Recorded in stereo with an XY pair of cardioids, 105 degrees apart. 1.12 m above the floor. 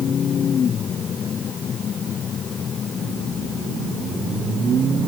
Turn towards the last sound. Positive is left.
No sound to turn to.